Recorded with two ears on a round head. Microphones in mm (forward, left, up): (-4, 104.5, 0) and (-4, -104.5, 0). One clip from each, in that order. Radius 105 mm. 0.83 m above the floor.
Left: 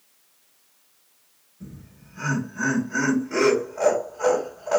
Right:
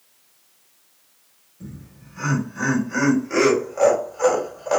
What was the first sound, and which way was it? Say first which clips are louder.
Laughter: right 3 dB; 55° right (ahead or behind).